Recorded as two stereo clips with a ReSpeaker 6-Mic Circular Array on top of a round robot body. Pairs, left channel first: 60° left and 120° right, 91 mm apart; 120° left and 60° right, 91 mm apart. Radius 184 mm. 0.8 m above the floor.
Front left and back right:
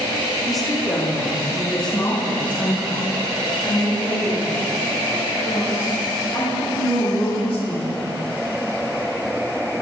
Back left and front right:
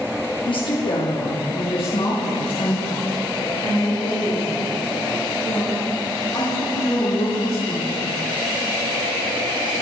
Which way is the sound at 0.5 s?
150° left.